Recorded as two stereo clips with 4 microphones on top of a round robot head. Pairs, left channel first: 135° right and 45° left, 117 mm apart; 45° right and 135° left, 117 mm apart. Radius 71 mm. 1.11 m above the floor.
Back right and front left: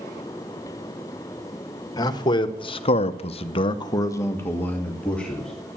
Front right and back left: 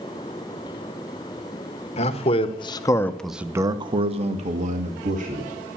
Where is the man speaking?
75° right, 1.7 m; by 5.8 s 140° left, 2.5 m.